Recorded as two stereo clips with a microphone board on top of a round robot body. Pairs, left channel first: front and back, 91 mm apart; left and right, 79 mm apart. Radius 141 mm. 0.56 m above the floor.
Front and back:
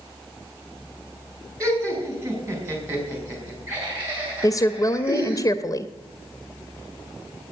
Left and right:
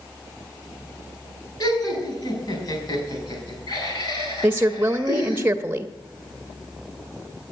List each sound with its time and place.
1.6 s laughter: 120° left, 5 m; by 5.4 s 105° left, 6.5 m
4.4 s a woman speaking: 30° right, 0.8 m